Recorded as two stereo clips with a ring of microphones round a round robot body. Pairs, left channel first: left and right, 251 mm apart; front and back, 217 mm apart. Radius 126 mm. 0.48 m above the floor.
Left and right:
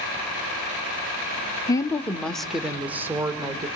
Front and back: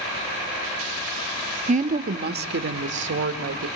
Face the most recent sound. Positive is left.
turn(degrees=-165)